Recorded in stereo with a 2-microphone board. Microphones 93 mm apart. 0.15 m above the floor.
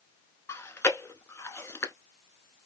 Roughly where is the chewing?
Left.